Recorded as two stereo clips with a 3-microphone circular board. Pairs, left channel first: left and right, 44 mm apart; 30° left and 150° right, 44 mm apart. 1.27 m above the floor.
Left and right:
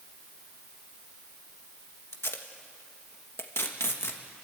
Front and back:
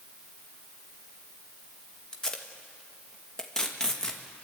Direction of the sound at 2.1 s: 105° left.